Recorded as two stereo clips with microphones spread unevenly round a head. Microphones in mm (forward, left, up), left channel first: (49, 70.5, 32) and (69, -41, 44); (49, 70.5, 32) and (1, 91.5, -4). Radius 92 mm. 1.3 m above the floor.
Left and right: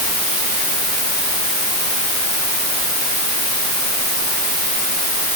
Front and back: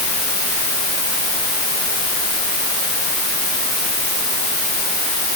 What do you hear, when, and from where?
Only background noise.